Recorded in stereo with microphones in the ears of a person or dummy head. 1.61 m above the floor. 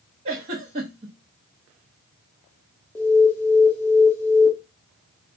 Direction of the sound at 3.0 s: 10° left (ahead or behind).